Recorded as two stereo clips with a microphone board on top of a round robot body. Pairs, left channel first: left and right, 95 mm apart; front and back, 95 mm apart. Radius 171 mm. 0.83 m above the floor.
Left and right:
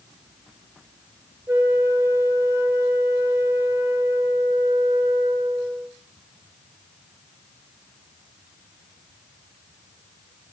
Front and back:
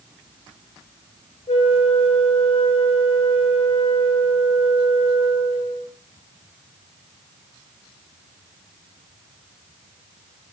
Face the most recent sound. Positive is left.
turn(degrees=-25)